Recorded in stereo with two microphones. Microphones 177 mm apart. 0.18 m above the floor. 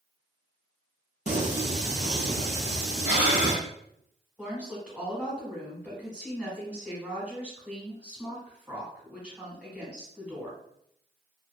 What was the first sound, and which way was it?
Singing, 45° right (ahead or behind).